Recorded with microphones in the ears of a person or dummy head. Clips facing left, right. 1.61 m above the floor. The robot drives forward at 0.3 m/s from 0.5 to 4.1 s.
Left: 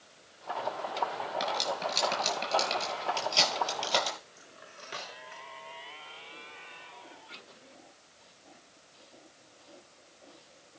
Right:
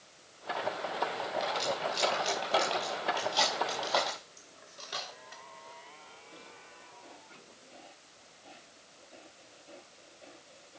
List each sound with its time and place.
1.4 s cutlery clinking: 35° left (ahead or behind), 6 m; by 4.2 s 40° left (ahead or behind), 5 m
4.4 s cutlery clinking: 45° left (ahead or behind), 3 m